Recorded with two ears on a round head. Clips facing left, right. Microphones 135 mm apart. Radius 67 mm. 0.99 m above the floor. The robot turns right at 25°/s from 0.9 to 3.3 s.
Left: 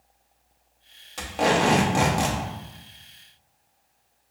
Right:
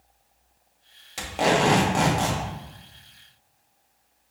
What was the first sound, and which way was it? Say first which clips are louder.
Tape being pulled: even; 10° right.